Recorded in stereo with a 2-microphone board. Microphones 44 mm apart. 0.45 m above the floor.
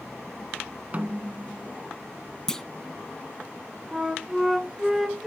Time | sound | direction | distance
0.9 | a snare drum | 35° right (ahead or behind) | 0.8 m
2.5 | a clunk | 15° left (ahead or behind) | 0.6 m
3.9 | a flute | 10° right (ahead or behind) | 1.3 m